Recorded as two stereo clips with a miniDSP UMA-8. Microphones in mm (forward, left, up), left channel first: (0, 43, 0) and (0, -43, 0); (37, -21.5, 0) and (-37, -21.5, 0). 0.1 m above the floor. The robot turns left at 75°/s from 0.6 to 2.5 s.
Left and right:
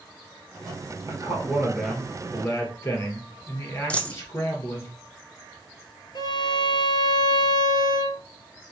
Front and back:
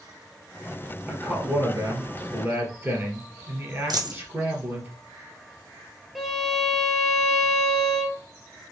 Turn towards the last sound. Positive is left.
turn(degrees=95)